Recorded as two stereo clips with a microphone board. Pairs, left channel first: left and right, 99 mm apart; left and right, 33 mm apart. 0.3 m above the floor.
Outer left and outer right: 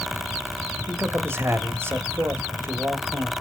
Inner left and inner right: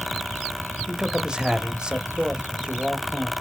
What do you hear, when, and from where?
0.9 s a man speaking: 25° right (ahead or behind), 1.0 m